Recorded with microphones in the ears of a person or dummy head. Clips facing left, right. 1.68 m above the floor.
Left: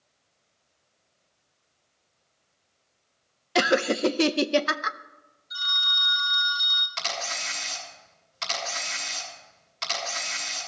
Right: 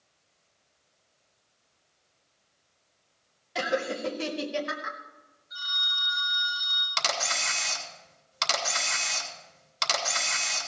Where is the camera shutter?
80° right, 2.5 m.